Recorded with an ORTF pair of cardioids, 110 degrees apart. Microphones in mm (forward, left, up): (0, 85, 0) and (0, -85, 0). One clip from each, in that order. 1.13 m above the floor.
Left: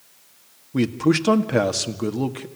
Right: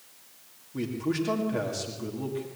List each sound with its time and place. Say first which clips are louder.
0.7 s a man speaking: left 10 dB; 65° left, 2.0 m